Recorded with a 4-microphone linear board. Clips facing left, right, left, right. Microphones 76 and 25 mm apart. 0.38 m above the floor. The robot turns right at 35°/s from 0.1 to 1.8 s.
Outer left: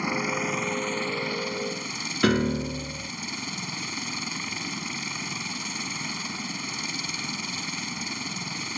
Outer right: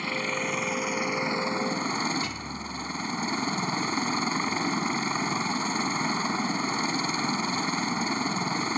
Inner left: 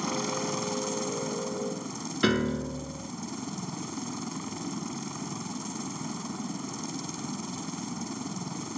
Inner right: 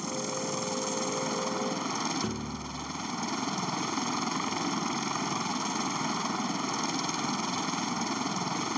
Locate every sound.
0.0 s a helicopter: 165° left; by 8.8 s 140° right
2.2 s a piano: 90° left